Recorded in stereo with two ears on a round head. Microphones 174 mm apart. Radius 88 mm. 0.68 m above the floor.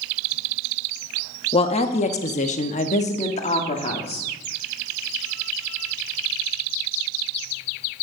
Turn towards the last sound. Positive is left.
turn(degrees=30)  # may be behind; listen again after turning